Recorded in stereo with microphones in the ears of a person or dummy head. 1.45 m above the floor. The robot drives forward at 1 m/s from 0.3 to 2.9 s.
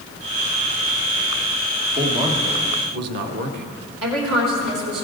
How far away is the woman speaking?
About 2.5 m.